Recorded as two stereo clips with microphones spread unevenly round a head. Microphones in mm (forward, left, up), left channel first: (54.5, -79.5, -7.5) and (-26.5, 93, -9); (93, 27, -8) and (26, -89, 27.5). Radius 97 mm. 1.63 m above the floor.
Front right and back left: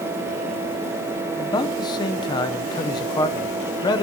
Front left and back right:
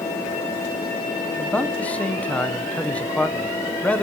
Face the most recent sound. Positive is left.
turn(degrees=-45)